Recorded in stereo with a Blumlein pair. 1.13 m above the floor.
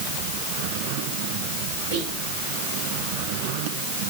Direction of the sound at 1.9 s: 50° right.